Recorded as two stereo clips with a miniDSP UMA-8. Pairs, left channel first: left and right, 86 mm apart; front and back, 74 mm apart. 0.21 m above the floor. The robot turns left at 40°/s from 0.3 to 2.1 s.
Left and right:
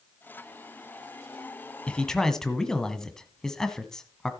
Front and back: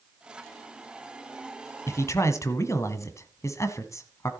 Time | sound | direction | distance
1.9 | a man speaking | 20° left | 1.3 m